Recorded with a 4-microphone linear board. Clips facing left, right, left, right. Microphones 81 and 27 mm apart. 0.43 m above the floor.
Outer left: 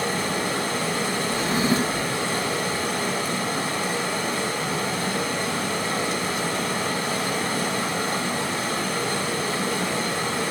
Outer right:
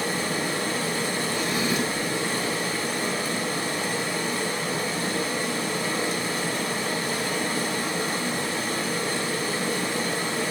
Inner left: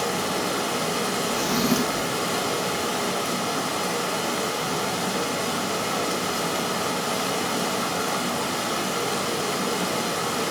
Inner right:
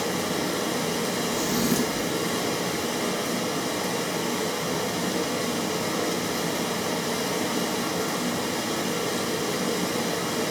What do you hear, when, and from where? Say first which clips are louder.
0.0 s running water: outer left 2 dB, inner left 1 dB; 60° left (ahead or behind), 2.5 m
1.3 s a drawer: outer left 5 dB, inner left 2 dB; 35° left (ahead or behind), 0.6 m